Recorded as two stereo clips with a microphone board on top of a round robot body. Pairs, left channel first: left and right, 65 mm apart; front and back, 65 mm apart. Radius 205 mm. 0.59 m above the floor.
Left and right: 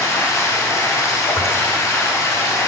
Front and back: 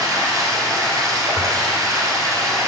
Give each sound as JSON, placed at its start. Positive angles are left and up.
{"t": 0.0, "sound": "running water", "azimuth_deg": 140, "distance_m": 1.3}
{"t": 1.4, "sound": "tearing paper", "azimuth_deg": 45, "distance_m": 1.8}